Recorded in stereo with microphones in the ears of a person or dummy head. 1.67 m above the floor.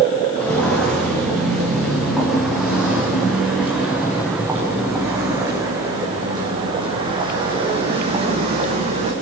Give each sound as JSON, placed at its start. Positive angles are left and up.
{"t": 0.3, "sound": "footsteps", "side_deg": 10, "distance_m": 7.5}